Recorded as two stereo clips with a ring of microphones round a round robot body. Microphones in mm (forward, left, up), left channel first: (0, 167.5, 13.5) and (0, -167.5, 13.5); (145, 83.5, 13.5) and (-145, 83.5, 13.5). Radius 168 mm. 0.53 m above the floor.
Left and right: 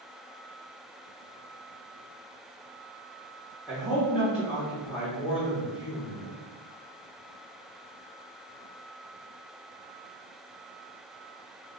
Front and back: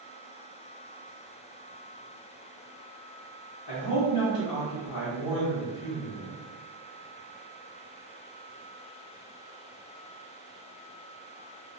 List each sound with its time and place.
3.7 s a man speaking: 5° right, 1.1 m